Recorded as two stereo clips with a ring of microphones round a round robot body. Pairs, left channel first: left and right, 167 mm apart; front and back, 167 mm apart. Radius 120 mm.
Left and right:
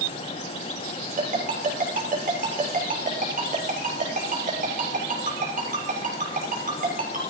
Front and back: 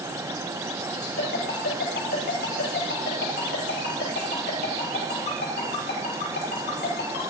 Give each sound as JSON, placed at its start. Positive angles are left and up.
{"t": 1.2, "sound": "a ringtone", "azimuth_deg": -50, "distance_m": 5.5}